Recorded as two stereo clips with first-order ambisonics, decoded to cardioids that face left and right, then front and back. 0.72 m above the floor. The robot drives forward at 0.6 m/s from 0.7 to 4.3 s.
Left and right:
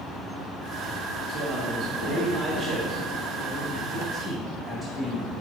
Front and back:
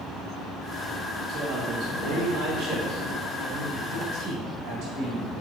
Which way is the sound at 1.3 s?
140° right.